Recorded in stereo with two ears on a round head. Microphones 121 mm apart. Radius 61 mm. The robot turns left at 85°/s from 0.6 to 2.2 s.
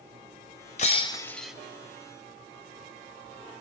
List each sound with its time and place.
0.8 s breaking glass: 60° left, 1.2 m; by 1.5 s 5° right, 1.2 m